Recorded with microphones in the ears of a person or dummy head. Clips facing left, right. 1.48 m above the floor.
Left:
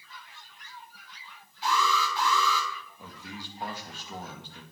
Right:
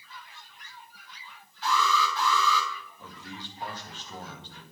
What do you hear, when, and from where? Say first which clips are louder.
1.6 s an alarm: right 1 dB; 15° left (ahead or behind), 7.5 m
3.0 s a man speaking: even; 10° left (ahead or behind), 2.0 m